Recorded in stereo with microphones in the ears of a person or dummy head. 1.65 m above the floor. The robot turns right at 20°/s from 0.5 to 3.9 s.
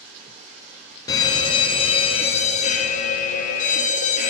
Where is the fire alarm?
35° left, 0.6 m; by 4.3 s 95° left, 0.6 m.